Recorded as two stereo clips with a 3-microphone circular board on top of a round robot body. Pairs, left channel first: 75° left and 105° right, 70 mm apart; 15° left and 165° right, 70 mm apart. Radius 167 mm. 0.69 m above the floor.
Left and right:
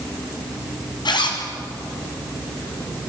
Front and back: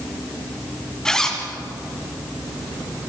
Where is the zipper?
95° left, 3 m.